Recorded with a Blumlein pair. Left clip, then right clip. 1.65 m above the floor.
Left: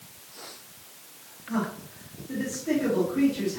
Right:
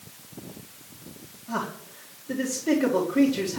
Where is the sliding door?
No sliding door in this recording.